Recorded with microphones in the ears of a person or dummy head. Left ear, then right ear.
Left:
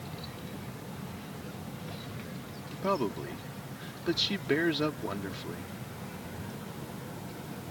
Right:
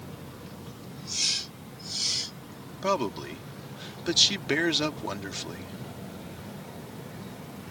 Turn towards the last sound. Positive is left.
turn(degrees=-35)  # may be behind; listen again after turning